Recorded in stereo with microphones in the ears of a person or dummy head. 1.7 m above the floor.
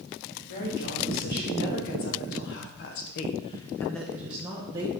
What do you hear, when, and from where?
0.5 s a woman speaking: 50° left (ahead or behind), 2.5 m; by 4.9 s 20° right (ahead or behind), 1.4 m